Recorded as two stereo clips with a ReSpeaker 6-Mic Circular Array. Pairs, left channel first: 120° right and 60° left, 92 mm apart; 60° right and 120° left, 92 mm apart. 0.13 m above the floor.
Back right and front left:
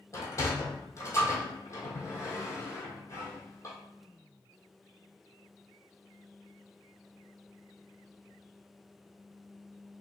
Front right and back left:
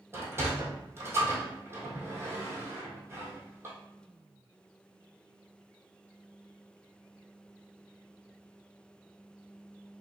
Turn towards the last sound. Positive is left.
turn(degrees=-175)